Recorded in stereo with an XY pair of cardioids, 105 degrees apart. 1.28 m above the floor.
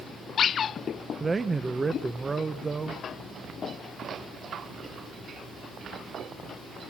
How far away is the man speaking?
About 1.0 m.